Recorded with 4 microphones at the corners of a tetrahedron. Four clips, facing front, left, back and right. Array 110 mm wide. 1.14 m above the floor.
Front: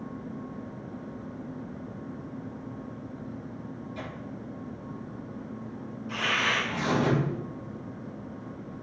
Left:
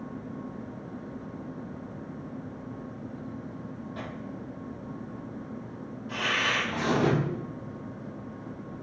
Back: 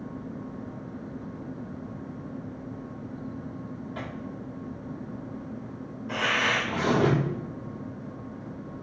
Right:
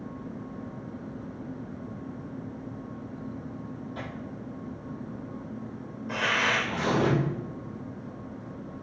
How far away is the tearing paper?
About 5.5 m.